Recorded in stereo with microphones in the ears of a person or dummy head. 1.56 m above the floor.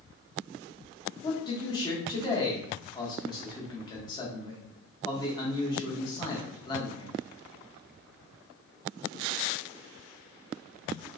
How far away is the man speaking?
About 0.8 m.